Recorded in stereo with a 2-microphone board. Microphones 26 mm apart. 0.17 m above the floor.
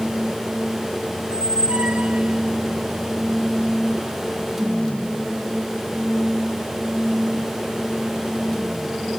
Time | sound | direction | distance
1.2 | a squeak | 55° right (ahead or behind) | ?